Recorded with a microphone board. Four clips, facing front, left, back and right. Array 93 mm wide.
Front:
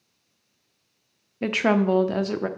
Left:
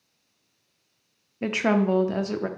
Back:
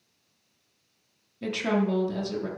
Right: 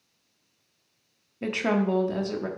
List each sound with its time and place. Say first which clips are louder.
1.4 s a woman speaking: left 3 dB, front 5 dB; 25° left, 0.7 m